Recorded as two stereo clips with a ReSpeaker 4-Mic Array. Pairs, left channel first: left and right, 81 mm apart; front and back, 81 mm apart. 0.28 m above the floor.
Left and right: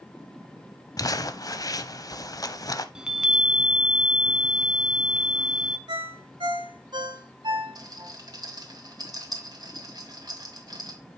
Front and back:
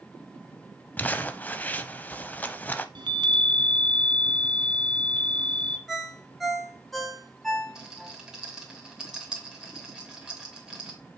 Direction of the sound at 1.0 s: 65° left.